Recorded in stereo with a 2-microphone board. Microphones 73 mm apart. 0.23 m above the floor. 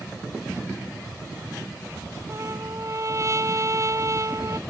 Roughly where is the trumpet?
Right.